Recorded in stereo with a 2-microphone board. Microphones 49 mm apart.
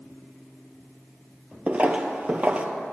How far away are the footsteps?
About 0.5 m.